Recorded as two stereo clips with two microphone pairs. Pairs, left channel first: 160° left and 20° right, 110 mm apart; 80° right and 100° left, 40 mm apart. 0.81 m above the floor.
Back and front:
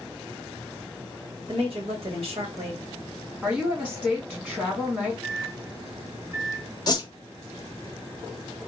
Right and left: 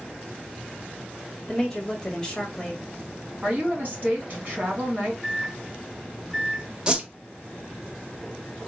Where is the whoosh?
155° left, 0.5 m.